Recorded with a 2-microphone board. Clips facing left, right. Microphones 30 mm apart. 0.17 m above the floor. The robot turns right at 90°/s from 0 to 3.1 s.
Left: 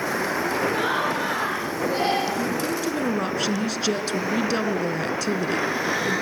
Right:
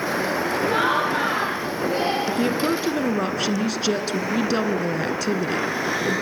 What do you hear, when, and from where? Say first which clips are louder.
0.7 s laughter: right 3 dB; 95° right, 6 m; by 2.2 s 40° left, 6 m
2.3 s a woman speaking: right 3 dB; 80° right, 1.7 m; by 6.2 s 5° right, 1.7 m